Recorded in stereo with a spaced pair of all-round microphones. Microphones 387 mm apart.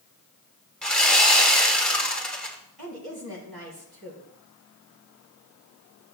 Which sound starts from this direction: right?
A woman speaking, at 2.8 s.